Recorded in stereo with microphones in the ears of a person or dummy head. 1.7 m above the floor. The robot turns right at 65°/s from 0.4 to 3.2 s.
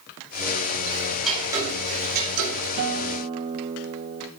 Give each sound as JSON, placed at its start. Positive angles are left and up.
{"t": 0.9, "sound": "ticking", "azimuth_deg": 155, "distance_m": 2.5}
{"t": 2.8, "sound": "a guitar", "side_deg": -50, "distance_m": 0.6}